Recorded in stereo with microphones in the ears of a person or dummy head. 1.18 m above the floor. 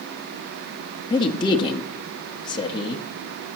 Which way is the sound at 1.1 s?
25° left (ahead or behind).